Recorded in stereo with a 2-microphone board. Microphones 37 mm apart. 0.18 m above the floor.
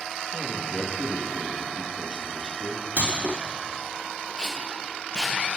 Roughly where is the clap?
Right.